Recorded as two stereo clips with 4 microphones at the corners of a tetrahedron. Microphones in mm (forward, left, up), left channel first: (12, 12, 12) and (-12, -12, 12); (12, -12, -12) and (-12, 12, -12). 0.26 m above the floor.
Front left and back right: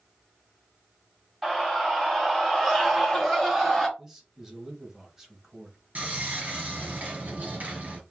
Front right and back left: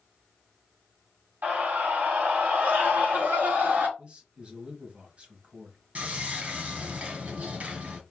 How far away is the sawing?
About 1.8 m.